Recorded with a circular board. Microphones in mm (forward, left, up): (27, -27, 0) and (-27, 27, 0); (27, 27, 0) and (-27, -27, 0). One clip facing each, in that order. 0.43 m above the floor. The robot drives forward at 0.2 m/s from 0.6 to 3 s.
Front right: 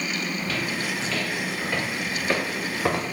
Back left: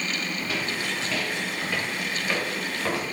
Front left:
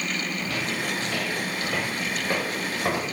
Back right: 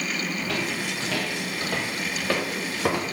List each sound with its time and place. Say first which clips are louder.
0.4 s footsteps: front right 1 dB, back right 1 dB; 155° right, 2 m; by 3.1 s 105° right, 1.9 m